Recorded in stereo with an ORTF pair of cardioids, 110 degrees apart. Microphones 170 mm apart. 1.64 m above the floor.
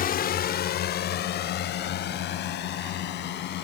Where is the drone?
55° left; by 3.6 s 75° left.